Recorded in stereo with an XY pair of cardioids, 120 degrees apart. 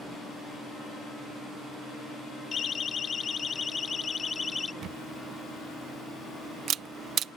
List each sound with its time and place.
2.5 s a siren: 40° left; by 4.7 s 20° left
4.8 s a camera shutter: 60° right